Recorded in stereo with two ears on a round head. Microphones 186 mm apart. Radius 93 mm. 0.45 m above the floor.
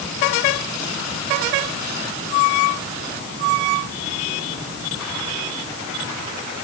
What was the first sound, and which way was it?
Only background noise.